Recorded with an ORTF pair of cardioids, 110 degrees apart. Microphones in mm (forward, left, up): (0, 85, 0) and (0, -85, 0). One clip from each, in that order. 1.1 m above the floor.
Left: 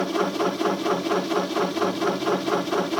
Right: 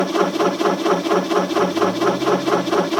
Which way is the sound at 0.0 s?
25° right.